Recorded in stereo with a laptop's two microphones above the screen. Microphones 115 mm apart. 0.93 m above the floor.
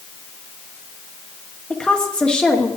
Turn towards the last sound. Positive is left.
turn(degrees=10)  # may be behind; listen again after turning